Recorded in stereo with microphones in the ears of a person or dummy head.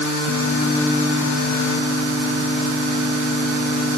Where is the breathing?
No breathing in this recording.